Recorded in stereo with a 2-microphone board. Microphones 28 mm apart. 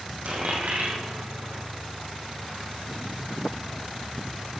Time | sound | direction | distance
0.2 | a dropped coin | 70° right (ahead or behind) | 2 m